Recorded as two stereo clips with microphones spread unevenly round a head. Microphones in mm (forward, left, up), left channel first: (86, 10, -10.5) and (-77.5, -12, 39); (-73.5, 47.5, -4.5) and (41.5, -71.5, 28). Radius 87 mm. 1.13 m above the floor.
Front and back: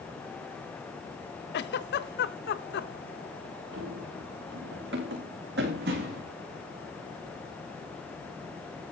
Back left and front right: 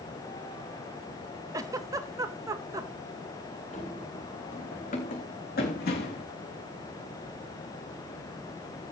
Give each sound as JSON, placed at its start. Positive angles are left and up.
{"t": 1.5, "sound": "a giggle", "azimuth_deg": 30, "distance_m": 0.9}
{"t": 3.7, "sound": "running footsteps", "azimuth_deg": -175, "distance_m": 6.5}